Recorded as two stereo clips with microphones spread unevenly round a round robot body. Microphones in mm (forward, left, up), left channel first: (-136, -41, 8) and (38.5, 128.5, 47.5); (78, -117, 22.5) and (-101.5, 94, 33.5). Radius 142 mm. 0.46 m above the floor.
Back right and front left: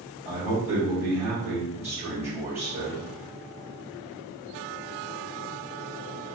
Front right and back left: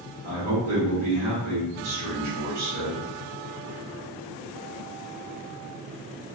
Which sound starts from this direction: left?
A man speaking, at 0.2 s.